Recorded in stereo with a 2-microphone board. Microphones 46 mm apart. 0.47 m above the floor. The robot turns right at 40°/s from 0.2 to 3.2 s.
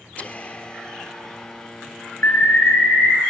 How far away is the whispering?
About 1.0 m.